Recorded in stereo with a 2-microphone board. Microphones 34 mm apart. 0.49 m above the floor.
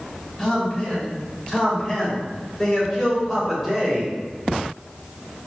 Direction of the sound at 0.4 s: 25° left (ahead or behind).